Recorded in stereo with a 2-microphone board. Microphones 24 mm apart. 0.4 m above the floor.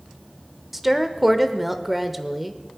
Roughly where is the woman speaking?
Centre.